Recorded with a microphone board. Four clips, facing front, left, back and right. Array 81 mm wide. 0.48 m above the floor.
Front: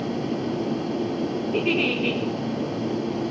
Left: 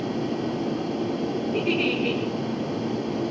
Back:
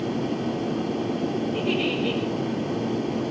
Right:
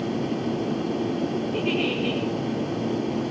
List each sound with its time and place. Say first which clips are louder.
1.5 s a giggle: left 3 dB, front 1 dB; 5° right, 10 m